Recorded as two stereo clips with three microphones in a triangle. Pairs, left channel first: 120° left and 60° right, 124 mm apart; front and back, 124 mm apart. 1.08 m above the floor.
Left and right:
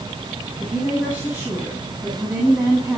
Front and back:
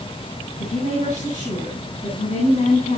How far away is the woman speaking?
About 8.5 m.